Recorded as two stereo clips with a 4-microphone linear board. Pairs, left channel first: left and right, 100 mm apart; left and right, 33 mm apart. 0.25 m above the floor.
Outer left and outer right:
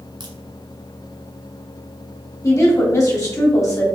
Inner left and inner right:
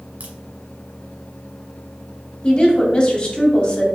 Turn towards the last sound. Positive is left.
turn(degrees=30)  # may be behind; listen again after turning